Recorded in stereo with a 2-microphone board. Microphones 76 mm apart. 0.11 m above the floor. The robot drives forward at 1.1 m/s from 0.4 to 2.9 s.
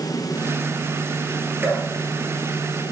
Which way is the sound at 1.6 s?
35° right (ahead or behind).